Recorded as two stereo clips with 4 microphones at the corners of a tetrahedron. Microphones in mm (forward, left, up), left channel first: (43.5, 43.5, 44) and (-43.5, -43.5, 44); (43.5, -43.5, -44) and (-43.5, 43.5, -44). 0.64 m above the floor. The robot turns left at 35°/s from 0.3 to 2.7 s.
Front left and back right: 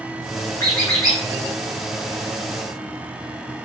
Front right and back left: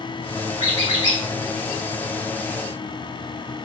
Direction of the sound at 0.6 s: 25° right.